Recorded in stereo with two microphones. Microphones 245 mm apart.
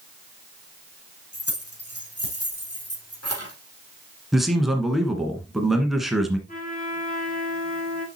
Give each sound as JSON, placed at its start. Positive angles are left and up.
{"t": 1.3, "sound": "keys jangling", "side_deg": 70, "distance_m": 5.0}
{"t": 4.3, "sound": "a man speaking", "side_deg": 0, "distance_m": 1.5}
{"t": 6.5, "sound": "a trumpet", "side_deg": 35, "distance_m": 2.5}